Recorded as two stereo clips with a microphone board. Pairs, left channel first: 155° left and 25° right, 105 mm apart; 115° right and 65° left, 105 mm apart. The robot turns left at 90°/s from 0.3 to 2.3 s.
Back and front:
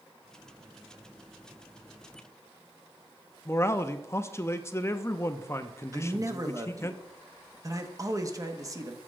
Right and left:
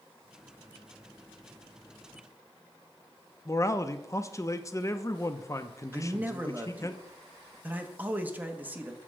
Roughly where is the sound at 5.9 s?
Ahead.